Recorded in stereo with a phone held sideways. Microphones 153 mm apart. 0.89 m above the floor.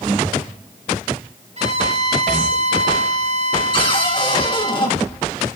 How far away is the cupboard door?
About 1.6 m.